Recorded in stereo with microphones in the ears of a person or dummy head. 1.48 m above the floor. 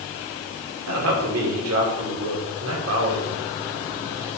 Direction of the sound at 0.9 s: 85° right.